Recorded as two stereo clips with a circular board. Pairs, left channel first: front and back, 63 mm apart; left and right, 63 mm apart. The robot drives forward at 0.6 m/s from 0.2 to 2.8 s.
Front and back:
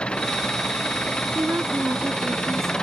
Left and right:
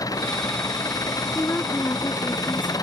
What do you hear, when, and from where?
0.0 s an engine running: 75° left
1.4 s a woman speaking: 140° left; by 2.7 s 145° left